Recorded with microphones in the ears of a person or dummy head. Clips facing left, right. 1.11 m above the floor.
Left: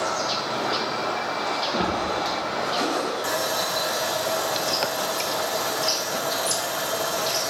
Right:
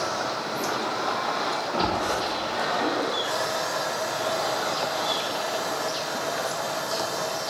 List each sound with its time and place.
1.7 s a splash: 15° left (ahead or behind), 8 m
3.2 s sawing: 55° left (ahead or behind), 5.5 m